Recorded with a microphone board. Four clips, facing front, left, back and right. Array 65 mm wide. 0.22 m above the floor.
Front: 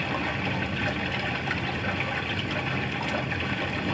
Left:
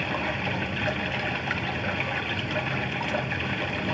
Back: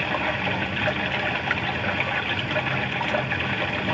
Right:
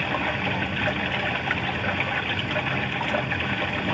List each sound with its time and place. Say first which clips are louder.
0.0 s running water: right 3 dB, back 4 dB; 145° right, 0.9 m